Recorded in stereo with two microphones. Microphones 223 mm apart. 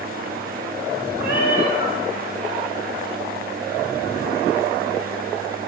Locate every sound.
1.2 s a cat meowing: 50° left (ahead or behind), 2.5 m